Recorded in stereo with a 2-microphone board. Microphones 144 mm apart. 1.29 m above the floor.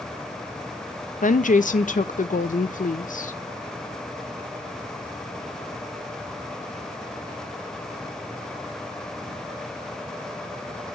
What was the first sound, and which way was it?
A woman speaking, 65° left (ahead or behind).